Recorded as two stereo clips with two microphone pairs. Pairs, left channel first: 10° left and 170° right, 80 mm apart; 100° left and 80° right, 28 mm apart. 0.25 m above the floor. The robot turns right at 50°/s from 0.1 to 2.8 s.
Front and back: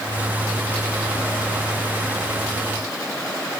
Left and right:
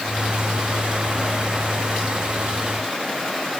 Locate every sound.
Only background noise.